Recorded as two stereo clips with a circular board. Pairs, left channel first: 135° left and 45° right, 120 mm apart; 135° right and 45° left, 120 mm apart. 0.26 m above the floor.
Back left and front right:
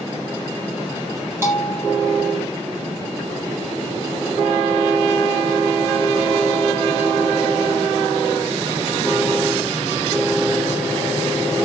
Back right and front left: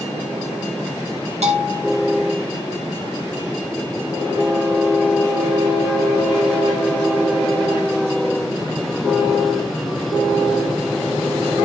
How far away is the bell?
About 4.5 m.